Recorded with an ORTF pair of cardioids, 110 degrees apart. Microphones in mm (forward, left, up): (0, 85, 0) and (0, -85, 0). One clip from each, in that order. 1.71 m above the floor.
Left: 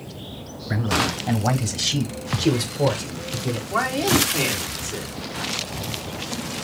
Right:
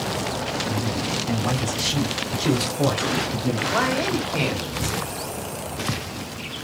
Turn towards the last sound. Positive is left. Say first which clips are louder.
# left 3 dB
turn(degrees=-10)